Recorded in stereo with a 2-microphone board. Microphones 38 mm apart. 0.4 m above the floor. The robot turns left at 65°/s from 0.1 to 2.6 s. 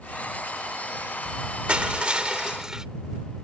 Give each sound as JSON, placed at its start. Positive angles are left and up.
{"t": 1.7, "sound": "crushing", "azimuth_deg": -85}